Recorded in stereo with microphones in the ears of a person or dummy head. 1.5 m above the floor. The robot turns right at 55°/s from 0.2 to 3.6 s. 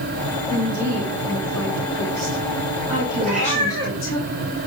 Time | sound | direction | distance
0.5 | a woman speaking | 165° right | 3 m
3.2 | a cat meowing | 50° right (ahead or behind) | 7.5 m